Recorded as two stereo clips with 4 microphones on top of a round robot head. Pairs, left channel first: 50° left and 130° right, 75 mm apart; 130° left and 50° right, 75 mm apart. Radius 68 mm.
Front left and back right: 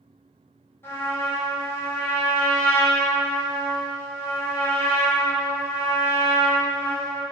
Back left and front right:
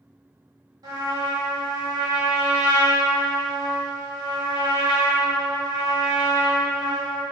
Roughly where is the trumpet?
Ahead.